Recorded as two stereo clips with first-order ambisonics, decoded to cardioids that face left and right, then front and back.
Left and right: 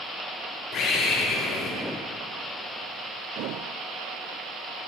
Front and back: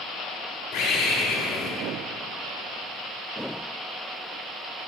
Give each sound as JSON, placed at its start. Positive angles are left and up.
{"t": 0.7, "sound": "a bird", "azimuth_deg": 25, "distance_m": 3.0}